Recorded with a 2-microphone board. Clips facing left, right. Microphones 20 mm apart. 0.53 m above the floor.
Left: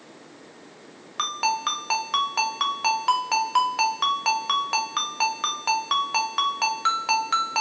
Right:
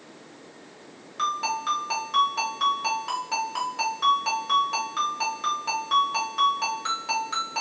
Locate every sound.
1.2 s a ringtone: 40° left (ahead or behind), 0.7 m